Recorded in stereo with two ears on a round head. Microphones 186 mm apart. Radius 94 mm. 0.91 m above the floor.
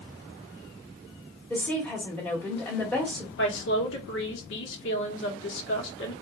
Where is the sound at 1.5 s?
5° left (ahead or behind), 2.0 m.